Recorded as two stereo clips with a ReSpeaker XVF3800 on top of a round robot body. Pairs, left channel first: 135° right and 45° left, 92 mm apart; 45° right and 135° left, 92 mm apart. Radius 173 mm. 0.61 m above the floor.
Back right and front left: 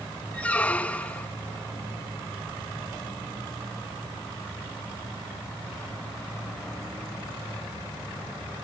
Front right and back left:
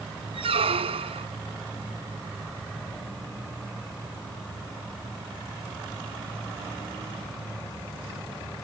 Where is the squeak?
150° left.